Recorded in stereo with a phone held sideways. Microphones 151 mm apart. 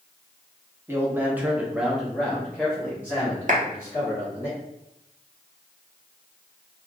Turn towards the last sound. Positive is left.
turn(degrees=-55)  # may be behind; listen again after turning